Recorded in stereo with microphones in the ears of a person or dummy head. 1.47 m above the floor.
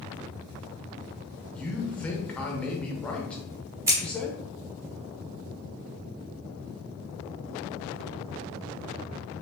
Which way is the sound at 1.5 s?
10° left (ahead or behind).